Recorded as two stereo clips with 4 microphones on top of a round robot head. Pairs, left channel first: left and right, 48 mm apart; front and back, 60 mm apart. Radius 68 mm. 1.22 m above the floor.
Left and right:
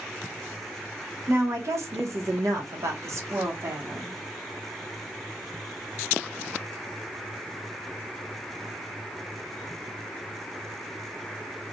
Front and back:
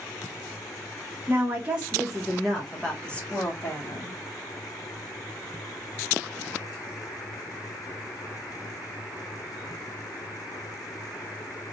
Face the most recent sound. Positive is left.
turn(degrees=-50)